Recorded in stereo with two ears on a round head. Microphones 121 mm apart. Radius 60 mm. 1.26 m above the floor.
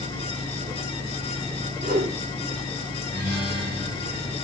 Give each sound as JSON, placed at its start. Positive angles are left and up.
{"t": 1.8, "sound": "a whoosh", "side_deg": -70, "distance_m": 3.0}
{"t": 3.1, "sound": "a guitar", "side_deg": -75, "distance_m": 3.5}